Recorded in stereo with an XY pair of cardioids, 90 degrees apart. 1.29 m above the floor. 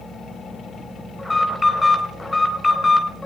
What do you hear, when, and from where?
0.0 s a fan: 60° left, 9 m
1.2 s an alarm: 20° left, 4 m